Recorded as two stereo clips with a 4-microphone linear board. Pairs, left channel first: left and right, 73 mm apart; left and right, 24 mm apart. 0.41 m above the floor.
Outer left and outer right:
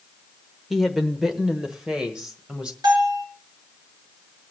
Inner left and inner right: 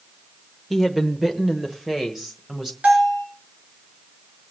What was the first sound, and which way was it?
A woman speaking, centre (ahead or behind).